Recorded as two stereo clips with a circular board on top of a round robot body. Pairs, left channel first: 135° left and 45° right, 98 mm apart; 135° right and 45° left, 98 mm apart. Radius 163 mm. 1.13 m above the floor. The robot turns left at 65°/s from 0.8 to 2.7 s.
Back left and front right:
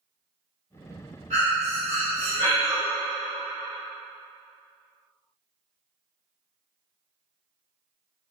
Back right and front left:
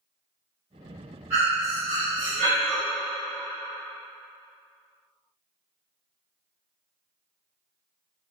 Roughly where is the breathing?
Ahead.